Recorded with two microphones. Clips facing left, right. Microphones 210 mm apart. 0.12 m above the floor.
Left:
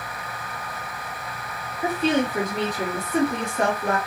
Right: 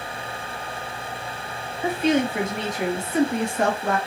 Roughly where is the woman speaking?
Left.